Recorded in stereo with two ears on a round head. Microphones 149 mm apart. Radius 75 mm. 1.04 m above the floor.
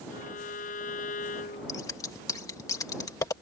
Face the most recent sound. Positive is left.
turn(degrees=20)  # may be behind; listen again after turning